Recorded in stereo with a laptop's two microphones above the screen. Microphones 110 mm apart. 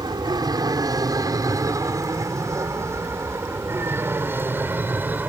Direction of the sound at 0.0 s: 40° right (ahead or behind).